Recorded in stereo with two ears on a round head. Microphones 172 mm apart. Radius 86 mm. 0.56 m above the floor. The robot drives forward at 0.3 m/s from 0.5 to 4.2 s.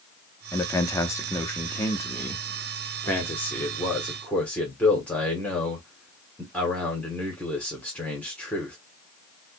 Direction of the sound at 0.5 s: 15° left (ahead or behind).